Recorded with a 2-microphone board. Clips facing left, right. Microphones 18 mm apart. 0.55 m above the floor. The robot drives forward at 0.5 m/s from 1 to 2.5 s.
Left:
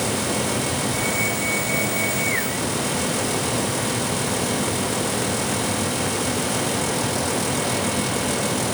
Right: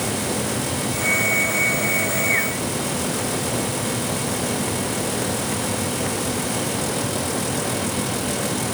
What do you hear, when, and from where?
Only background noise.